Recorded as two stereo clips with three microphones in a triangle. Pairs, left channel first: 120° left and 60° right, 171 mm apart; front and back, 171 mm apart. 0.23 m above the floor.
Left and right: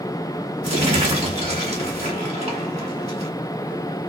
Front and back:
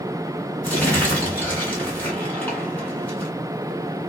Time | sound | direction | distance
0.6 | crumpling | 75° right | 1.4 m